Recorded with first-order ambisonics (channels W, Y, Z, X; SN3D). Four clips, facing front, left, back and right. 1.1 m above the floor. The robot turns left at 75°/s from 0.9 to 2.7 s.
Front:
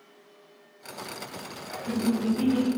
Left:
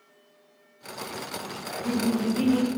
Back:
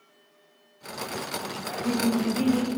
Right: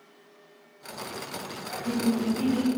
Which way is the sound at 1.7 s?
155° left.